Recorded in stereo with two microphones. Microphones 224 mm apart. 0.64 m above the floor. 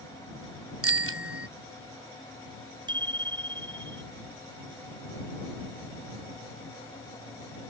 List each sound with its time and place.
0.8 s a bicycle bell: 85° right
2.9 s a bicycle bell: 20° right (ahead or behind)